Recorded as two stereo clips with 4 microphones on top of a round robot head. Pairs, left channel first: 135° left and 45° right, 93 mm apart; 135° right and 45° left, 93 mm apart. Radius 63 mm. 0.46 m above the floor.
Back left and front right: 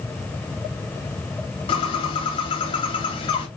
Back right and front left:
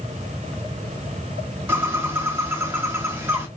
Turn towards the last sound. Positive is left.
turn(degrees=110)